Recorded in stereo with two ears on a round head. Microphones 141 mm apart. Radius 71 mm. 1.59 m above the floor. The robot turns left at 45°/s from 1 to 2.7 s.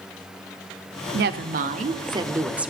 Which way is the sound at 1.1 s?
105° right.